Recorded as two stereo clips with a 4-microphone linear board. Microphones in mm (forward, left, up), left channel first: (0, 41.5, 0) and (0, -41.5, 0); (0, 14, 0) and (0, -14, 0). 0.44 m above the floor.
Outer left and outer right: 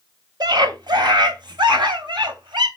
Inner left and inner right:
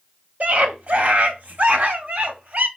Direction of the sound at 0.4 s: 60° right (ahead or behind).